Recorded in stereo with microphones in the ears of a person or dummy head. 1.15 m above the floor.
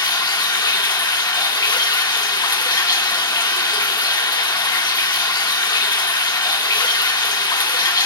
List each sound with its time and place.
0.0 s running water: 20° left (ahead or behind), 0.9 m